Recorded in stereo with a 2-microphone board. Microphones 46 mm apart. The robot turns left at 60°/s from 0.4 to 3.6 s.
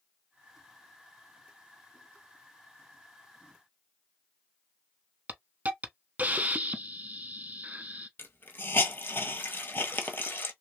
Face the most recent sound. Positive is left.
turn(degrees=45)  # may be behind; listen again after turning